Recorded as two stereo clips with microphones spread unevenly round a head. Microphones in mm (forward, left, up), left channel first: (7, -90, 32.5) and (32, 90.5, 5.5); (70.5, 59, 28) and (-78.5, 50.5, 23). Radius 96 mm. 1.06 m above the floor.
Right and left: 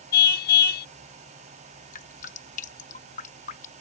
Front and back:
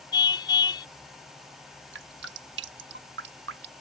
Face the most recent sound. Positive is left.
turn(degrees=-150)